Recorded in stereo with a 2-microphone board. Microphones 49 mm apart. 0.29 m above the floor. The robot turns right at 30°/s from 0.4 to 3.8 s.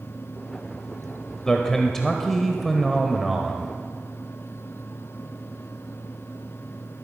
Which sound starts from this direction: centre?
A man speaking, at 1.4 s.